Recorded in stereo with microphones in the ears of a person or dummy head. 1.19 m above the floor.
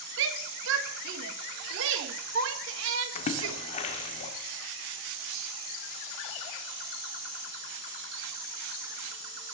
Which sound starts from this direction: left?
A splash, at 3.1 s.